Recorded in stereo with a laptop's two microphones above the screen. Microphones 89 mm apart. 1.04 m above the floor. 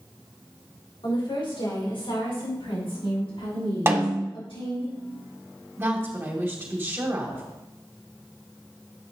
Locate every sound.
1.0 s a woman speaking: 65° left (ahead or behind), 3.5 m; by 4.9 s 85° left, 6 m
3.9 s a snare drum: 25° right (ahead or behind), 0.7 m
5.8 s a woman speaking: 25° right (ahead or behind), 2.5 m